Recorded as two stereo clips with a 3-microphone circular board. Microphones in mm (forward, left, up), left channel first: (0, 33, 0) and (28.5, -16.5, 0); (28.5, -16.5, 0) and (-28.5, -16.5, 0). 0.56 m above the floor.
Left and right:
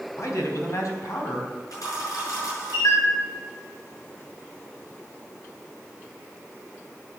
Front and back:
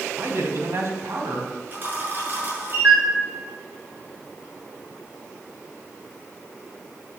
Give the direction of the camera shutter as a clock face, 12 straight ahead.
8 o'clock.